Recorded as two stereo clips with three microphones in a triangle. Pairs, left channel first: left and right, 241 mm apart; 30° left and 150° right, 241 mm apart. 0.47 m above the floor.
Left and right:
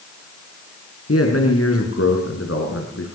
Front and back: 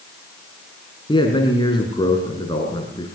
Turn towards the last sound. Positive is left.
turn(degrees=100)